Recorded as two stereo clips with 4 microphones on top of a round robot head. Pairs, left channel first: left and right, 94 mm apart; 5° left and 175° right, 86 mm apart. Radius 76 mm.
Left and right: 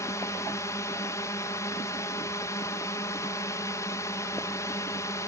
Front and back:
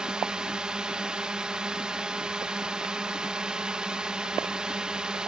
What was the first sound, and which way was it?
A drone, 110° left.